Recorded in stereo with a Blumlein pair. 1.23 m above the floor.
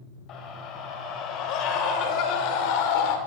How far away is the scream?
About 7.5 m.